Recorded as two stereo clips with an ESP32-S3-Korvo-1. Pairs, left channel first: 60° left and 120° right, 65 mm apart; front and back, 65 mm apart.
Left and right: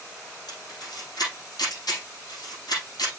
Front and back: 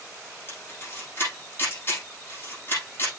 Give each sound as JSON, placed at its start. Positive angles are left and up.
{"t": 0.5, "sound": "a camera shutter", "azimuth_deg": 55, "distance_m": 6.0}